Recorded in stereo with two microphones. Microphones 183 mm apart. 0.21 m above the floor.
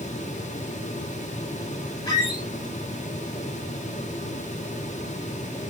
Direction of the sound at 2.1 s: 20° left (ahead or behind).